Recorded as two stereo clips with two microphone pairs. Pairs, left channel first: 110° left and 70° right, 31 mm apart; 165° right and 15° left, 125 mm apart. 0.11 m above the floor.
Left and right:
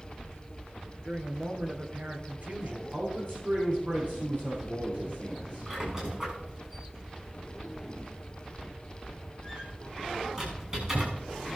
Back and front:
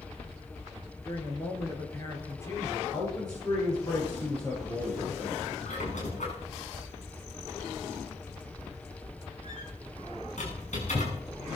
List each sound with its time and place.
1.0 s a woman speaking: 100° right, 3 m
2.9 s a man speaking: 105° right, 8.5 m
5.7 s a squeak: 145° right, 5.5 m